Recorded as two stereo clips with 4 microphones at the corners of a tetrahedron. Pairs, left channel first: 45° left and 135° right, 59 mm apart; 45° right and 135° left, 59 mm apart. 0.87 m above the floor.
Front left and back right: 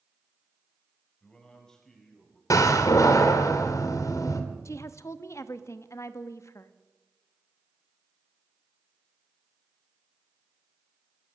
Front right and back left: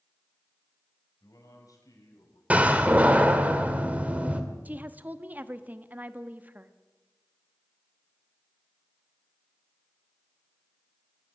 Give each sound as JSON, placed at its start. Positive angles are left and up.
{"t": 1.2, "sound": "a man speaking", "azimuth_deg": -30, "distance_m": 4.5}
{"t": 2.5, "sound": "a door slam", "azimuth_deg": 70, "distance_m": 1.9}
{"t": 4.7, "sound": "a woman speaking", "azimuth_deg": 75, "distance_m": 1.1}